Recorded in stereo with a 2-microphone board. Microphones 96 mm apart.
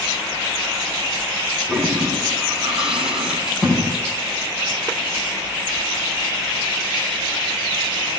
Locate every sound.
1.7 s a toilet flushing: 5° right (ahead or behind), 7.5 m
3.5 s a door slam: 5° right (ahead or behind), 5.5 m